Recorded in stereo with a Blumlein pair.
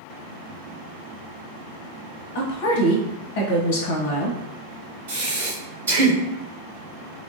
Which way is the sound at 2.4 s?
50° left.